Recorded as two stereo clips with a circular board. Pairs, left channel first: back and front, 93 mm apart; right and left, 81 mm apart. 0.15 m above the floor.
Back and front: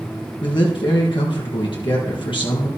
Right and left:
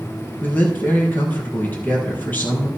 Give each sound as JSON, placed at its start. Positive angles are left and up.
{"t": 0.4, "sound": "a man speaking", "azimuth_deg": -155, "distance_m": 4.0}